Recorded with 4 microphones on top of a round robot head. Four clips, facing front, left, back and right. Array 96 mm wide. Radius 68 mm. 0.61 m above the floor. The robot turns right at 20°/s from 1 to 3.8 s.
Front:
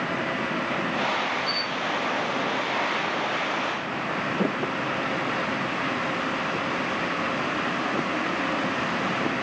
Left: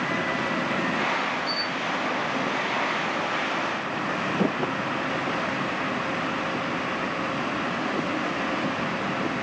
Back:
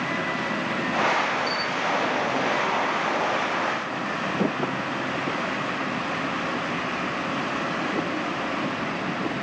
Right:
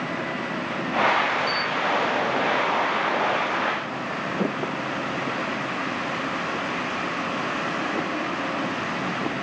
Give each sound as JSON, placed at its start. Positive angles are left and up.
{"t": 1.5, "sound": "a camera shutter", "azimuth_deg": 120, "distance_m": 2.5}